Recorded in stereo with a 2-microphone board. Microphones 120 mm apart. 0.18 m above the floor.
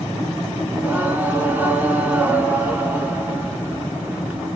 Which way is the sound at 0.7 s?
15° right (ahead or behind).